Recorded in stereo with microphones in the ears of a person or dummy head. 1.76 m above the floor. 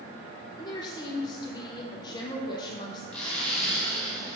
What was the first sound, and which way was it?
A woman speaking, 25° left (ahead or behind).